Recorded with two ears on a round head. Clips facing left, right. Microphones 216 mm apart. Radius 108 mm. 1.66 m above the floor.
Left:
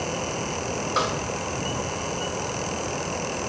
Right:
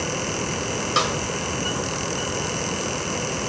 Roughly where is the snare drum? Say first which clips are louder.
Right 1 dB; right.